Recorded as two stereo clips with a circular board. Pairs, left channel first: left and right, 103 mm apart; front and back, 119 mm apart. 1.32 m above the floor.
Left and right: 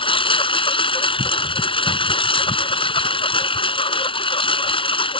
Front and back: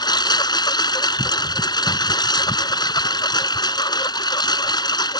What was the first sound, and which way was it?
A lawn mower, 55° left.